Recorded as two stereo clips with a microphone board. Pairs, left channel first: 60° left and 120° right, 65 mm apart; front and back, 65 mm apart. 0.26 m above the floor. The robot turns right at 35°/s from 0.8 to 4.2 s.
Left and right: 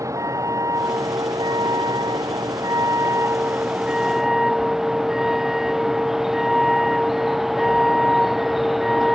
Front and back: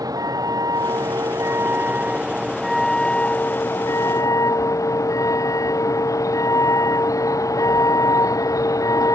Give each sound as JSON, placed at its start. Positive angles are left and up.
{"t": 0.0, "sound": "a vehicle", "azimuth_deg": -160}